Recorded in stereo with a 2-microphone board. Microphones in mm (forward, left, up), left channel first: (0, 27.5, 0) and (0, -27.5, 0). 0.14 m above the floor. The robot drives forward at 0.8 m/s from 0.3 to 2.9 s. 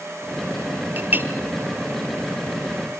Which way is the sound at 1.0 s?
40° right (ahead or behind).